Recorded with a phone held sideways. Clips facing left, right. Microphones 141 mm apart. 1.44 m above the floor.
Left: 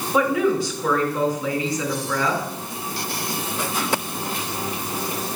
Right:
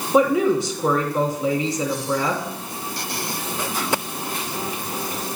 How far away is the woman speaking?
About 2.5 m.